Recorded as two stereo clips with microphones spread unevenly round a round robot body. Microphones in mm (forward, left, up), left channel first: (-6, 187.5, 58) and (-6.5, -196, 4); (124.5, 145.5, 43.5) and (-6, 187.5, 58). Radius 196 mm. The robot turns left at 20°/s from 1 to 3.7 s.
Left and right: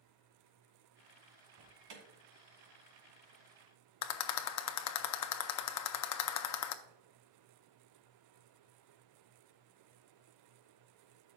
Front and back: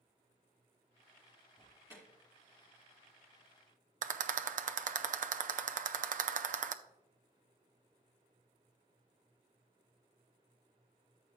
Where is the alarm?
80° right, 3 m; by 2.0 s 85° right, 3 m.